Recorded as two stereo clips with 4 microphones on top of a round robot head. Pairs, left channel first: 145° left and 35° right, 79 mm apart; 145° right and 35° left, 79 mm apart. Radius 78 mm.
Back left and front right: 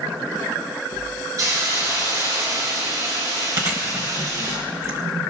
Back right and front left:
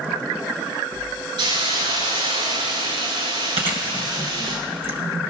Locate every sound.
1.4 s a hiss: 10° left, 9.5 m
3.6 s chewing: 20° left, 2.0 m